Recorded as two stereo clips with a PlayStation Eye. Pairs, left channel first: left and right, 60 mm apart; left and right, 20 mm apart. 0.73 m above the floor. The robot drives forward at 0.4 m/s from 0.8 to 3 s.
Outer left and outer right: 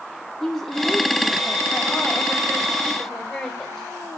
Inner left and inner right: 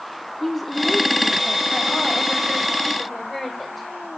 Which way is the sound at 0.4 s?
5° left (ahead or behind).